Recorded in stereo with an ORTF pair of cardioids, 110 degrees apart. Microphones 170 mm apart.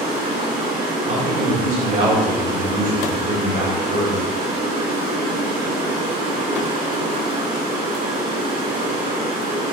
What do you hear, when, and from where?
0.0 s running water: 70° right, 3 m
1.1 s a man speaking: 50° right, 3 m